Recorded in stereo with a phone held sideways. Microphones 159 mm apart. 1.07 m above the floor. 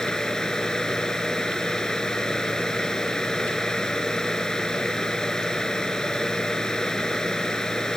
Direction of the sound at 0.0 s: 5° left (ahead or behind).